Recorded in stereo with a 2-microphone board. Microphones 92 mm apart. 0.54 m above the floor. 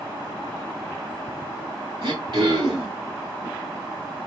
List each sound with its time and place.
2.0 s throat clearing: 65° right (ahead or behind), 3 m